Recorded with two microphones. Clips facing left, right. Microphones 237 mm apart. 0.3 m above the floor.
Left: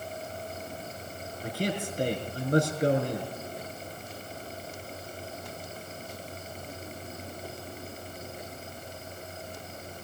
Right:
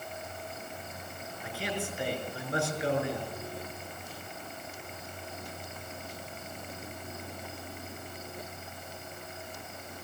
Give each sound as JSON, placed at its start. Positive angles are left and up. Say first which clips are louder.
{"t": 1.4, "sound": "a man speaking", "louder": "left 5 dB", "side_deg": 40, "distance_m": 5.0}